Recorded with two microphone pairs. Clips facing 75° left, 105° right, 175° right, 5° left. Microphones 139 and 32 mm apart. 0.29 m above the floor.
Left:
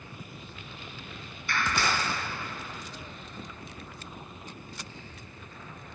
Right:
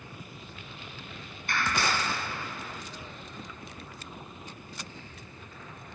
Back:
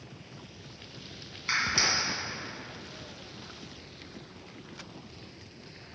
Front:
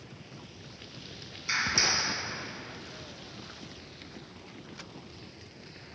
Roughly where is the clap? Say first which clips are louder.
Even, back 1 dB; behind right.